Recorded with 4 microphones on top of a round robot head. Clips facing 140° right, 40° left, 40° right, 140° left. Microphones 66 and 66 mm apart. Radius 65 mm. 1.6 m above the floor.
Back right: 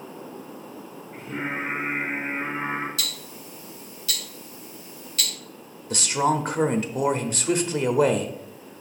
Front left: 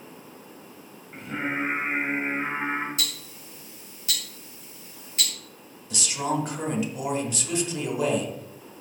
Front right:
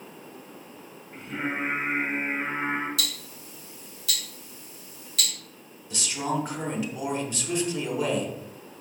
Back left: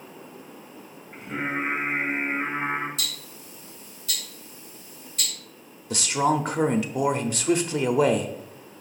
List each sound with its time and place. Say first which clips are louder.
1.1 s singing: front left 1 dB, back left 2 dB; 75° left, 2 m
3.0 s ticking: even, front right 2 dB; 25° right, 1.8 m
5.9 s a man speaking: back right 5 dB, back left 6 dB; 170° left, 0.8 m